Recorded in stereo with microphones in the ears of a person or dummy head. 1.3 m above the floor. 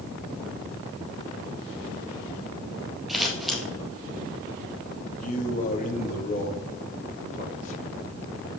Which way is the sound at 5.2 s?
40° left (ahead or behind).